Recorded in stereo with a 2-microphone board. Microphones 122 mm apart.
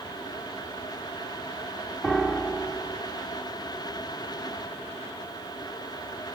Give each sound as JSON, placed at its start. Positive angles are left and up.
{"t": 2.0, "sound": "a piano", "side_deg": 0, "distance_m": 1.0}